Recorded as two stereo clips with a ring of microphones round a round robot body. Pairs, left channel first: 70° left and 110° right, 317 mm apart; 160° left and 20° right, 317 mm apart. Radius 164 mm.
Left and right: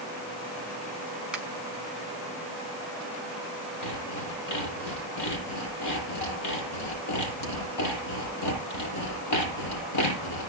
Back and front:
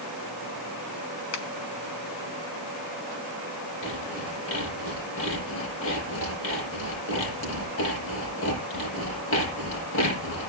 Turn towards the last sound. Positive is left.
turn(degrees=105)